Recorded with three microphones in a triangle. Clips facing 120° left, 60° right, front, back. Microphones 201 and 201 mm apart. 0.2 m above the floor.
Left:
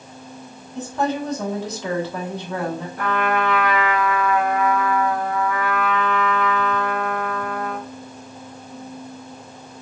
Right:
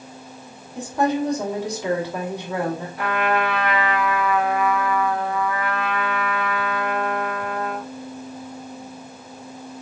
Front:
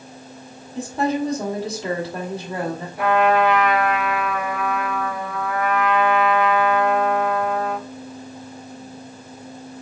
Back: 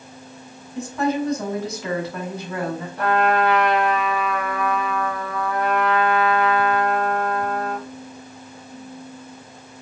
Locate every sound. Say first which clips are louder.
0.8 s a woman speaking: right 2 dB, even; 5° left, 1.3 m
3.0 s a trumpet: left 1 dB, front 2 dB; 80° left, 1.2 m